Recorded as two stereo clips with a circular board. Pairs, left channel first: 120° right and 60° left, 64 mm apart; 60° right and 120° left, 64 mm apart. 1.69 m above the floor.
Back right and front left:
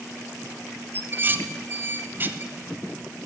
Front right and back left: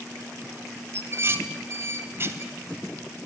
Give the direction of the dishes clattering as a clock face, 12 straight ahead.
9 o'clock.